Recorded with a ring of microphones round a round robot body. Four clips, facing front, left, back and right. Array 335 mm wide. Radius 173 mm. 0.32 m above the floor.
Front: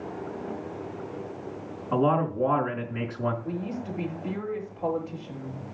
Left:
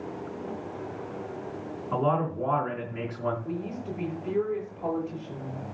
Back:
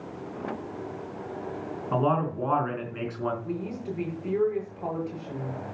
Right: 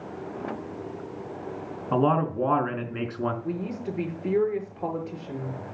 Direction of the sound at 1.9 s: 85° right.